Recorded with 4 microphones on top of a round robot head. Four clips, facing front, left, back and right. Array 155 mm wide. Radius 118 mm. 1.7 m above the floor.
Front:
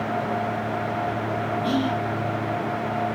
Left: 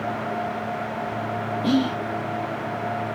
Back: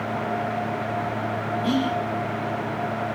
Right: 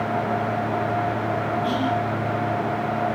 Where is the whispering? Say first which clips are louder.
Left 4 dB, back 1 dB; 85° left, 1.4 m.